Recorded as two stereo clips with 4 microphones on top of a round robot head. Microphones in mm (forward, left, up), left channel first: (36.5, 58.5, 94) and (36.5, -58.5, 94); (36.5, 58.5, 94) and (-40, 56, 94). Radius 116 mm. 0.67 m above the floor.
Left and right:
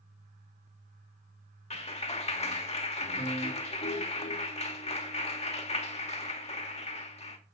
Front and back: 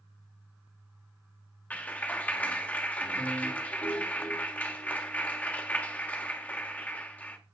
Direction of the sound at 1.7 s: 70° left.